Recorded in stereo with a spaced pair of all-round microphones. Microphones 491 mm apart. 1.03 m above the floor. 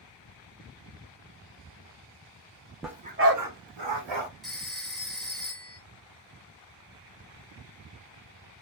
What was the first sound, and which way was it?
A dog barking, centre (ahead or behind).